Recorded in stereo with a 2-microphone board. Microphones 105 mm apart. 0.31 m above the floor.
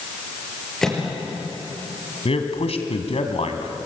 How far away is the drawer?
I don't hear a drawer.